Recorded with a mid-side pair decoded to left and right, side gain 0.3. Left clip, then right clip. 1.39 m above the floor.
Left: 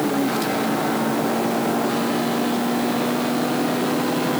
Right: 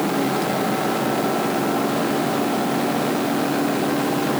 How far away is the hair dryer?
No hair dryer in this recording.